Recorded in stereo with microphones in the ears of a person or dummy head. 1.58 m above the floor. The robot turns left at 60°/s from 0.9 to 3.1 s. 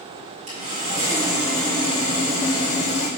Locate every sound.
0.5 s sawing: 145° right, 4 m; by 3.1 s 85° left, 4 m